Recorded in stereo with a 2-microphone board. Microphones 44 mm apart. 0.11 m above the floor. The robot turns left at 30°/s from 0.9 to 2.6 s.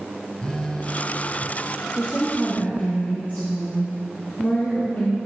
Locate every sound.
0.4 s a phone buzzing: 20° left (ahead or behind), 1.0 m; by 1.5 s 35° left (ahead or behind), 1.0 m
2.0 s a woman speaking: 55° left (ahead or behind), 2.5 m; by 5.2 s 40° left (ahead or behind), 2.5 m